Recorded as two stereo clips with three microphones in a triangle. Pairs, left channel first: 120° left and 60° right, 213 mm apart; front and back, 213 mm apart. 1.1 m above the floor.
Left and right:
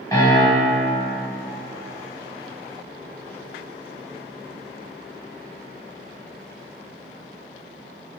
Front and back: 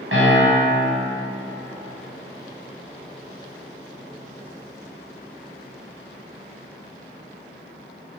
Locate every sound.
0.1 s a piano: 170° right, 0.7 m